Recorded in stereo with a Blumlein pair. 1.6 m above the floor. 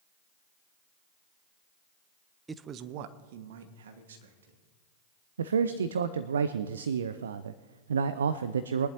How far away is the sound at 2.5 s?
About 0.6 m.